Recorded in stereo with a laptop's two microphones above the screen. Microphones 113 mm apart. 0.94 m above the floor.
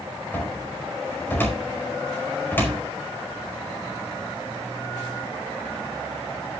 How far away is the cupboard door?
About 4.5 m.